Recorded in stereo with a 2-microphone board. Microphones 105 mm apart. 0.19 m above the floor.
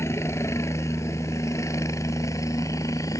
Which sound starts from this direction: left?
A helicopter, at 0.0 s.